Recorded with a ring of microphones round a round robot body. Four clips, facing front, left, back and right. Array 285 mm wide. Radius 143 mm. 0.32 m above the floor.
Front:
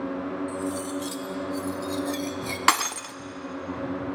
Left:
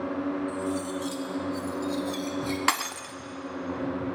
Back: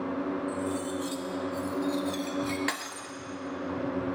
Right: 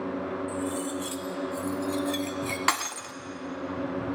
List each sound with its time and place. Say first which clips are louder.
0.5 s cutlery clinking: left 1 dB, front 1 dB; 40° right, 0.5 m
2.7 s breaking glass: even, front 12 dB; straight ahead, 0.5 m